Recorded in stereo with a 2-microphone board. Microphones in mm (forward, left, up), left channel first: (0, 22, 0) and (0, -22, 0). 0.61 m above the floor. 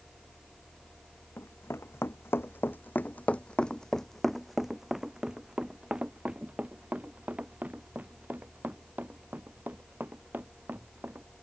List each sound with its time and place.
1.4 s running footsteps: 75° left (ahead or behind); by 11.2 s 45° right (ahead or behind)